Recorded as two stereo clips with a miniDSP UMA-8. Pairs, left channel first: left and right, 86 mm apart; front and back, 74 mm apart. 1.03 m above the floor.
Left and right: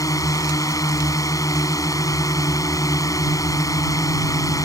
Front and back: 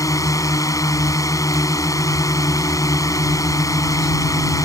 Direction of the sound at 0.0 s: 40° left.